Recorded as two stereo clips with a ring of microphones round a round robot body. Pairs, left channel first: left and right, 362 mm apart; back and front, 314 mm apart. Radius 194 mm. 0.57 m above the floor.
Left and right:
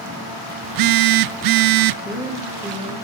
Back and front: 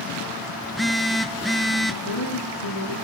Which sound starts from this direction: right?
A phone buzzing, at 0.6 s.